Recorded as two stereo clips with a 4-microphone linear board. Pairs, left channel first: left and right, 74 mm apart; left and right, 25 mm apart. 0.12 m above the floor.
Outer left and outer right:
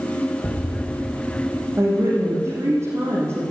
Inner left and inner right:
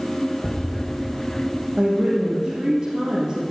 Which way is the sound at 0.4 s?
30° left (ahead or behind).